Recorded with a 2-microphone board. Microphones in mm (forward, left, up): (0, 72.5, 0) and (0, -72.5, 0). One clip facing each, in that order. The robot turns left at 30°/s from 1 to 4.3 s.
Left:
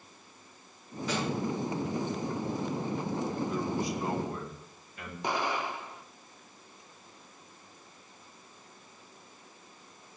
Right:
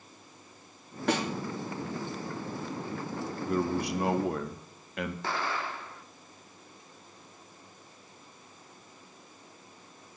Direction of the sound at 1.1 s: 70° right (ahead or behind).